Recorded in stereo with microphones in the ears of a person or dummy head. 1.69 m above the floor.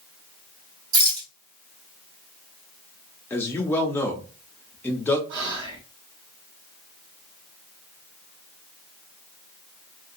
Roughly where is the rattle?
Right.